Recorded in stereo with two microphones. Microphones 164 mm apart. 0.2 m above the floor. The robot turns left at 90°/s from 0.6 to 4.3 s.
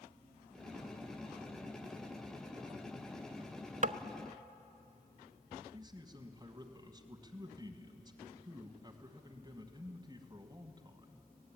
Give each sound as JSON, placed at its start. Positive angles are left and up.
{"t": 3.8, "sound": "tapping", "side_deg": -55, "distance_m": 0.5}
{"t": 5.7, "sound": "a man speaking", "side_deg": -25, "distance_m": 1.4}